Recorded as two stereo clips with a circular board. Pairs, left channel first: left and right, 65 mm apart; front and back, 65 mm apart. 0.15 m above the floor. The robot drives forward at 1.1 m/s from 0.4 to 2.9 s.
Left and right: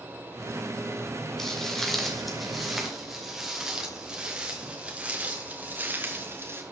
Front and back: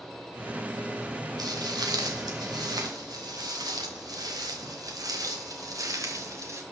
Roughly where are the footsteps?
Behind.